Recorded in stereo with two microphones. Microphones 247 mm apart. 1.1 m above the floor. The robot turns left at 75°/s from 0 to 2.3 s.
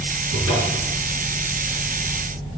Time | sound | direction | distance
0.3 | a cupboard door | 65° right | 4.5 m